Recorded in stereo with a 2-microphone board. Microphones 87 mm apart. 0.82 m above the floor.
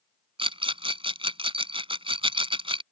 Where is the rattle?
80° right.